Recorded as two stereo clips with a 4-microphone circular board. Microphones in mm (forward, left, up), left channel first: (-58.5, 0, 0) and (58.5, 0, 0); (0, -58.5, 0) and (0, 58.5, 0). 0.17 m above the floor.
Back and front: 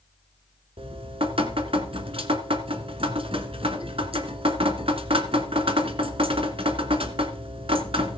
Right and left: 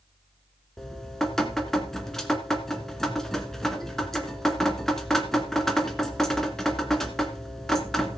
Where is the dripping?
5° right, 1.5 m.